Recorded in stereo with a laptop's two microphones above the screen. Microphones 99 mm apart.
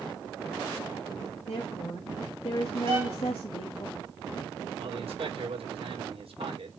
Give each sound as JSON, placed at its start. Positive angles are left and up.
{"t": 1.5, "sound": "a woman speaking", "side_deg": 70, "distance_m": 1.3}
{"t": 2.9, "sound": "a violin", "side_deg": -70, "distance_m": 2.5}
{"t": 4.8, "sound": "a man speaking", "side_deg": -85, "distance_m": 3.5}